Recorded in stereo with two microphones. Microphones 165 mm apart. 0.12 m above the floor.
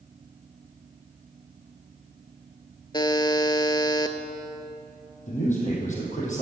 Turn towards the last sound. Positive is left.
turn(degrees=50)  # may be behind; listen again after turning